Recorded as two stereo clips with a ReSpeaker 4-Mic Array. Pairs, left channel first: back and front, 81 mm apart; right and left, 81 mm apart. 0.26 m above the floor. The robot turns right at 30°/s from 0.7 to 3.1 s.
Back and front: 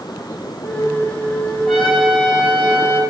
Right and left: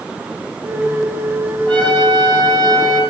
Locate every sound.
1.6 s a trumpet: 90° left, 8.5 m; by 3.0 s 130° left, 8.5 m